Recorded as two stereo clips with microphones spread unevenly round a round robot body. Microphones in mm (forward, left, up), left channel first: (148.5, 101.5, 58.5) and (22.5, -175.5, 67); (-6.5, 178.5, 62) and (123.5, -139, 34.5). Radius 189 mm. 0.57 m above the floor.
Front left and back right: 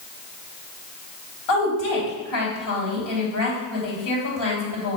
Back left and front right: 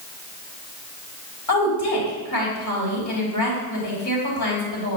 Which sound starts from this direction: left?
A woman speaking, at 1.5 s.